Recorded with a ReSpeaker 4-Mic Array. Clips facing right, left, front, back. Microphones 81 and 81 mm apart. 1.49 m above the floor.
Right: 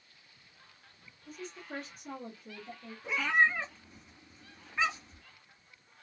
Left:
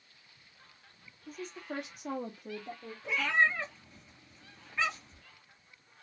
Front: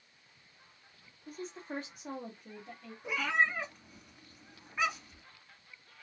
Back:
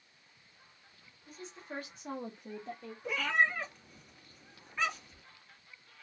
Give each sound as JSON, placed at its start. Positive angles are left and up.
{"t": 1.3, "sound": "a woman speaking", "azimuth_deg": 40, "distance_m": 1.0}
{"t": 3.0, "sound": "a cat meowing", "azimuth_deg": -50, "distance_m": 1.4}